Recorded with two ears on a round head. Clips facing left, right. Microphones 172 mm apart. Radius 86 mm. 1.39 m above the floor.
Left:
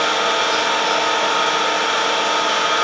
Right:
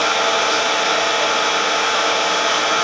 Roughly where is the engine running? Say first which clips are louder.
Right 1 dB; right.